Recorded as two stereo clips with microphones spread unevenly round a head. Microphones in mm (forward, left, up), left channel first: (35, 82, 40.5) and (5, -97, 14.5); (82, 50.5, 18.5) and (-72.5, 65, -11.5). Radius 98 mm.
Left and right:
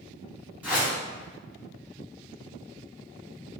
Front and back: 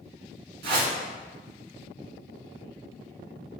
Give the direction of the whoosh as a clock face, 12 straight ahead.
6 o'clock.